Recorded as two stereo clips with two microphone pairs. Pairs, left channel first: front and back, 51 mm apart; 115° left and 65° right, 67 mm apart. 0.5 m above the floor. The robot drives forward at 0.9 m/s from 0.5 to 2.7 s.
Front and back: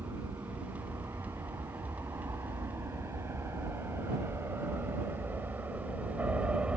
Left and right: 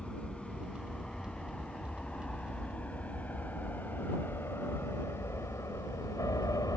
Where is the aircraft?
165° right; by 6.8 s 120° left.